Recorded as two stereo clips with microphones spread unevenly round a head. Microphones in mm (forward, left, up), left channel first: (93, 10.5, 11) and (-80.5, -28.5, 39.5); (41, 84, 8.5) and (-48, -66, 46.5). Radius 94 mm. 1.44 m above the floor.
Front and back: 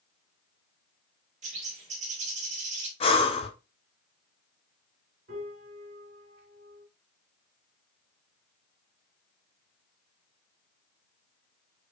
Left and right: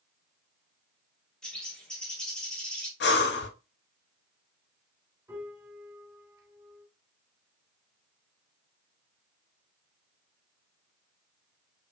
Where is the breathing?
70° left, 0.6 m.